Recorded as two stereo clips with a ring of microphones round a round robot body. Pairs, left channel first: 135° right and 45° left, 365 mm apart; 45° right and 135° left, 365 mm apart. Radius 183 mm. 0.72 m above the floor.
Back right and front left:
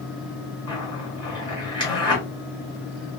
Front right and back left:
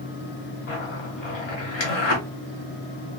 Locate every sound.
0.7 s a zipper: 55° right, 1.6 m